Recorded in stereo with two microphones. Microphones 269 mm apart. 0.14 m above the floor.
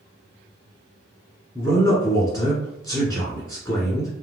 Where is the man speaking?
15° left (ahead or behind), 1.3 m.